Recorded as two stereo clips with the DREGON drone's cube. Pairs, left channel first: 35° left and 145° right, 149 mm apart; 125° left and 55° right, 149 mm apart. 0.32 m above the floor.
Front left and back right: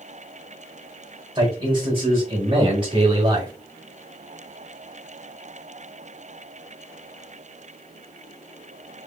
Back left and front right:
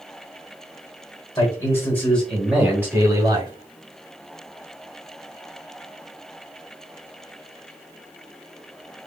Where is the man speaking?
170° left, 1.9 m; by 3.5 s 95° right, 1.9 m.